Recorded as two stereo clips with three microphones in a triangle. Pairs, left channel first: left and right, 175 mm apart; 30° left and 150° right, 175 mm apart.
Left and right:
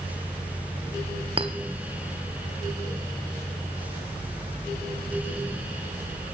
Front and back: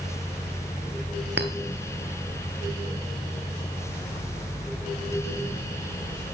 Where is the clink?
150° right, 0.9 m.